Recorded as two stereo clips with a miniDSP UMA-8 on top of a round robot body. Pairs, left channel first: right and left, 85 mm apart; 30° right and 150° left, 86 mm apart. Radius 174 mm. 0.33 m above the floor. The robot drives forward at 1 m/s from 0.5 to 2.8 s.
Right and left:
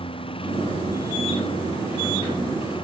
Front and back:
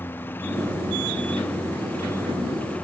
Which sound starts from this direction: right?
A lawn mower, at 0.0 s.